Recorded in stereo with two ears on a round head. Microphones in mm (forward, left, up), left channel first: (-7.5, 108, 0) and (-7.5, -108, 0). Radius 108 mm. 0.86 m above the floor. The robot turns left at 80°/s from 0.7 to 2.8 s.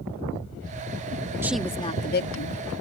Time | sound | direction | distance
1.4 | a woman speaking | 170° right | ?